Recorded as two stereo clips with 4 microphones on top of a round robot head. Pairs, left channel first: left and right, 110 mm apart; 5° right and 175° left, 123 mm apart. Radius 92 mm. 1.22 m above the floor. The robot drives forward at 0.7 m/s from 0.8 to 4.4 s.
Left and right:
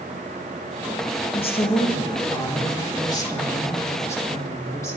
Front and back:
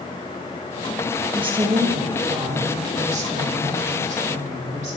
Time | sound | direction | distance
1.3 | a woman speaking | 120° left | 2.0 m